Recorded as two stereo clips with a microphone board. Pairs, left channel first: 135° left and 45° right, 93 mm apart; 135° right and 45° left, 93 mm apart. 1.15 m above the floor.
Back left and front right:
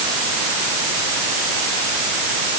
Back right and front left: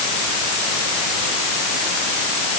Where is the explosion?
I don't hear an explosion.